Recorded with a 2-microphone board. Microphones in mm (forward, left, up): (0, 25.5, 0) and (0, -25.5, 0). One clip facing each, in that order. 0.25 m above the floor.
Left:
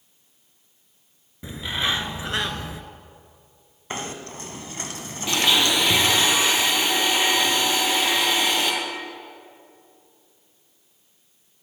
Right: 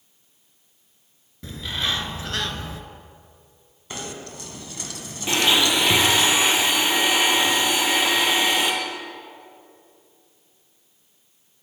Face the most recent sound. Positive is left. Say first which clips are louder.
# right 1 dB
turn(degrees=-20)  # may be behind; listen again after turning